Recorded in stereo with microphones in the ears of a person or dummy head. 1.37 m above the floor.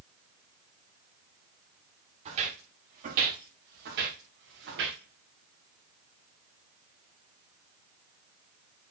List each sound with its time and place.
2.2 s footsteps: 40° right (ahead or behind), 6 m; by 5.0 s 75° right (ahead or behind), 5 m